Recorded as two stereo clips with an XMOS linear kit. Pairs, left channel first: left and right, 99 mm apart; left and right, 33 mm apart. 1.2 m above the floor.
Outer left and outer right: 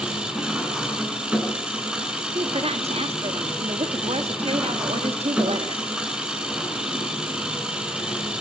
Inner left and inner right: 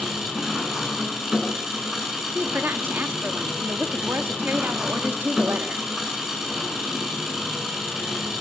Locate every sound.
0.0 s an engine running: 10° right (ahead or behind), 7 m
2.4 s a woman speaking: 90° right, 2.0 m